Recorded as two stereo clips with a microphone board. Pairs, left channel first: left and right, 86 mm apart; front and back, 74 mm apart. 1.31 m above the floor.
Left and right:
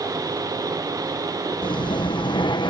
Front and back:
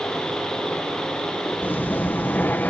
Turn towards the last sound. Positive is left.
turn(degrees=65)